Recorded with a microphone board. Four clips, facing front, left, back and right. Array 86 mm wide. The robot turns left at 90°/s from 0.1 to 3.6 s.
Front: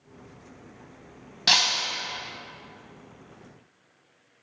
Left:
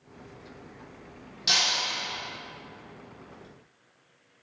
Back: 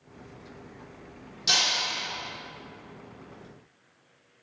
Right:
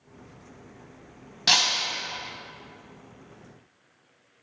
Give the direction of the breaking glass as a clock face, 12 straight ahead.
1 o'clock.